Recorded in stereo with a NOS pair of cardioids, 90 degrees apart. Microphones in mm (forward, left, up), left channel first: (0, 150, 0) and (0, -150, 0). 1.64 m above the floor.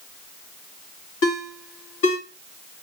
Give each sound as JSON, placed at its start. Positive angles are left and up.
{"t": 1.2, "sound": "a ringtone", "azimuth_deg": 50, "distance_m": 1.9}